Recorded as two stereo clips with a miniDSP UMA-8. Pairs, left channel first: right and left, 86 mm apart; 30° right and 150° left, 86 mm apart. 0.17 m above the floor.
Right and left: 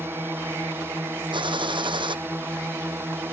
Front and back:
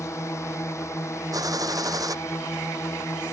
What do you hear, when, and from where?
0.0 s a drone: 25° left
1.3 s a gunshot: 105° left